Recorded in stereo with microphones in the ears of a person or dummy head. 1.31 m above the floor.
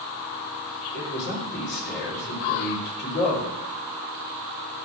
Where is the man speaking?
55° left (ahead or behind), 4.5 m.